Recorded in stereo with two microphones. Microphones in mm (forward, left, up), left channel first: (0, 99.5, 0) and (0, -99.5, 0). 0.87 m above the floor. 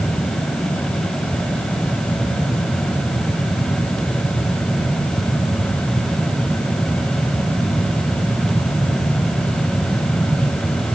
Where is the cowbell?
I don't hear a cowbell.